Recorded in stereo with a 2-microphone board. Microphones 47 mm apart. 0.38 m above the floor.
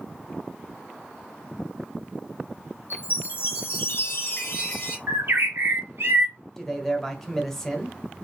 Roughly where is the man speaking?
Centre.